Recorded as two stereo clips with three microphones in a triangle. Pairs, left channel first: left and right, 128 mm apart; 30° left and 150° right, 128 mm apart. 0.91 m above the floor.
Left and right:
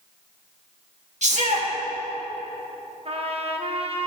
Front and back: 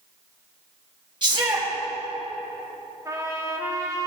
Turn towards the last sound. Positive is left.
turn(degrees=-90)